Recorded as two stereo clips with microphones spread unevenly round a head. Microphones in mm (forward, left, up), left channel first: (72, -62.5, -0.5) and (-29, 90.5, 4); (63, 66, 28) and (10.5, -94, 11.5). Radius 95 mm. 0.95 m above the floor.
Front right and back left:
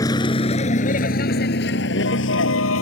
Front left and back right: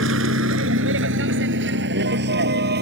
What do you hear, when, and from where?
0.0 s a vehicle: 130° right; by 2.8 s 85° right